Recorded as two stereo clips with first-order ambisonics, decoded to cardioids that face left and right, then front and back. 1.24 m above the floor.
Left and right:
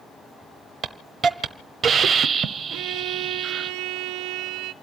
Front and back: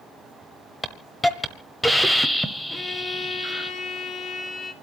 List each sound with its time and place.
0.8 s a hiss: 80° right, 1.0 m
2.7 s a violin: 65° right, 1.7 m